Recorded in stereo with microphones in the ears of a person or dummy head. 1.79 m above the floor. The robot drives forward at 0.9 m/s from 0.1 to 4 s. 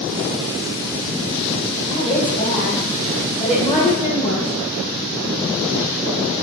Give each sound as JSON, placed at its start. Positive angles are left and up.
{"t": 1.9, "sound": "a woman speaking", "side_deg": 40, "distance_m": 4.0}